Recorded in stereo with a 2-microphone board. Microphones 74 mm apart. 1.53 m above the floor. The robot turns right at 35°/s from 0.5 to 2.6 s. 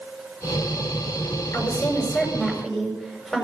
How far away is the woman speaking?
About 6.5 m.